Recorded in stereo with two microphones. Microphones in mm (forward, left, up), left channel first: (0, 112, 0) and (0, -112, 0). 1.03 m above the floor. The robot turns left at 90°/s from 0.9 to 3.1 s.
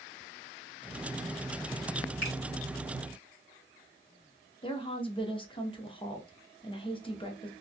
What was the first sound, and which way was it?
A finger snap, 85° right.